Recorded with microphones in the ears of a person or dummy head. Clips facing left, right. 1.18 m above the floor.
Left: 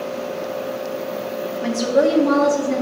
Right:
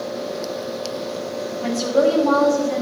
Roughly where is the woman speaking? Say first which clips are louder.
Left 1 dB; centre.